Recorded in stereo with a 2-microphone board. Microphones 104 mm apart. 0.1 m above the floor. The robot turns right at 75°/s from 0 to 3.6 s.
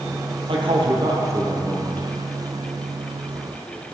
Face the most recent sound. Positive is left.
turn(degrees=140)